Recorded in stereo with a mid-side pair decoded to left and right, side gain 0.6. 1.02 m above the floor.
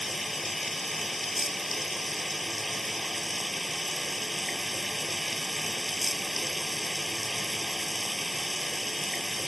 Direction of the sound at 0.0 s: 5° left.